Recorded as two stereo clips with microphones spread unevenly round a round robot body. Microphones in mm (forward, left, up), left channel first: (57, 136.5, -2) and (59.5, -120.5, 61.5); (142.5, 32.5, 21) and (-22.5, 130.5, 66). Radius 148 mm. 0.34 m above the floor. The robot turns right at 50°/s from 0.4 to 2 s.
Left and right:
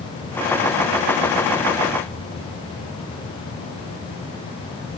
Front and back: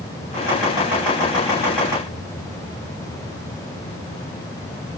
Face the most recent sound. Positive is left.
No sound to turn to.